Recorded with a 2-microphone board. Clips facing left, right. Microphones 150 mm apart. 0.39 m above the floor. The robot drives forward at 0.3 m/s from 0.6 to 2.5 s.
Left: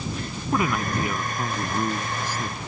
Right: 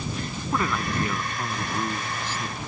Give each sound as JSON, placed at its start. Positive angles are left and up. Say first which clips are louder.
{"t": 0.5, "sound": "a man speaking", "louder": "left 3 dB", "side_deg": 10}